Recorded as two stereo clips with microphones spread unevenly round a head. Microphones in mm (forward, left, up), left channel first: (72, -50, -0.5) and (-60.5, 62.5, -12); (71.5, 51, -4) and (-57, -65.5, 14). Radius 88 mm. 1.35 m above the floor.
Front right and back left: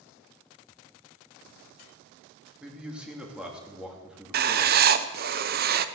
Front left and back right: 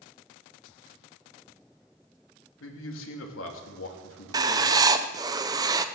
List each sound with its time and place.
2.6 s a man speaking: 55° left, 3 m
4.3 s writing: 150° left, 0.7 m